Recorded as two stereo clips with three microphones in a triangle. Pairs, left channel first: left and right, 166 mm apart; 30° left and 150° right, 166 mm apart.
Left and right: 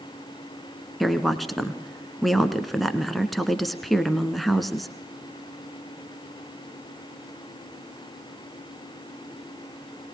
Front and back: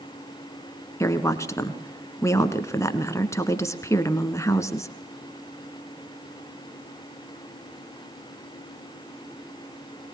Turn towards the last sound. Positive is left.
turn(degrees=0)